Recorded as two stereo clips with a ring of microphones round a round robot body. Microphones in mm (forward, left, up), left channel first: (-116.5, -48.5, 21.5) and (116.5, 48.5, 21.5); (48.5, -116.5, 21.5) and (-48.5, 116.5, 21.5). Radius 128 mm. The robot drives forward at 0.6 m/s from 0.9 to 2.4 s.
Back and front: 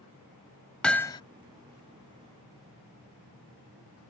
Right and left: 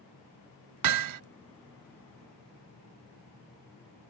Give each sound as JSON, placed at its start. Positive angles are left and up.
{"t": 0.8, "sound": "hammering", "azimuth_deg": 115}